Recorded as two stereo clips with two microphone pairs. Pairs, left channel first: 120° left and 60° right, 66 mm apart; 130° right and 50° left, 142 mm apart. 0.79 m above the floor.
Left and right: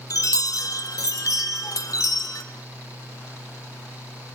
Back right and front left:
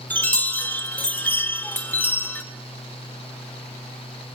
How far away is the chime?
About 1.9 m.